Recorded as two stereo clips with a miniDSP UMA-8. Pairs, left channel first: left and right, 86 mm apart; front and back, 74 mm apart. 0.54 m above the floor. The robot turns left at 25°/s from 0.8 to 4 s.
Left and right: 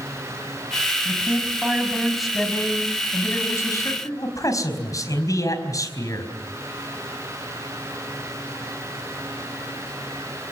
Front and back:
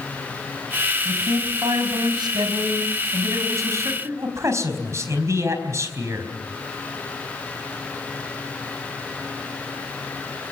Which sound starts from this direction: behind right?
A man speaking, at 1.1 s.